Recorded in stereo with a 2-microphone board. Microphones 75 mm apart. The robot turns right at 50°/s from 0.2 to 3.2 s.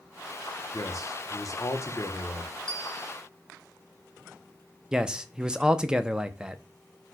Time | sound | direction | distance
0.7 | a man speaking | 65° left | 0.8 m
2.7 | a bell | 10° left (ahead or behind) | 0.8 m
4.9 | a man speaking | 10° right (ahead or behind) | 0.5 m